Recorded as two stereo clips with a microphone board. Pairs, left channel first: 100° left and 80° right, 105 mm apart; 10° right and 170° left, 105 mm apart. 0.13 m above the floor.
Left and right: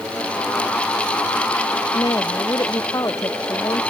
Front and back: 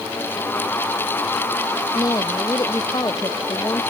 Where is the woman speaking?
45° left.